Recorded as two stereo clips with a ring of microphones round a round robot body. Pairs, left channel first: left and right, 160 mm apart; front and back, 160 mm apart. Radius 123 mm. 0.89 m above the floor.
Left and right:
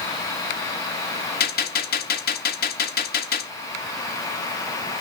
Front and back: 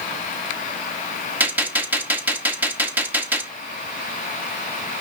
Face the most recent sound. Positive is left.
turn(degrees=100)